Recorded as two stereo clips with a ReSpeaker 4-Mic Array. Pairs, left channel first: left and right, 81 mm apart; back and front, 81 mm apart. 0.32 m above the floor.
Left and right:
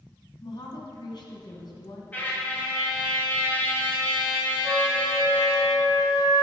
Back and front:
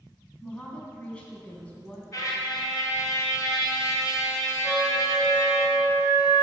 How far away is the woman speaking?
About 2 m.